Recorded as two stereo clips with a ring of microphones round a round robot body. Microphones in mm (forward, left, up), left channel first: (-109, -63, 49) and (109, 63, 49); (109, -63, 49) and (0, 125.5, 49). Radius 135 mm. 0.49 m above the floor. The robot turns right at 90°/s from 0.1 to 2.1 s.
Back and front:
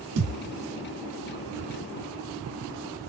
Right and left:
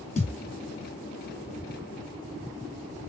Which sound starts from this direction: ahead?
A thud, at 0.2 s.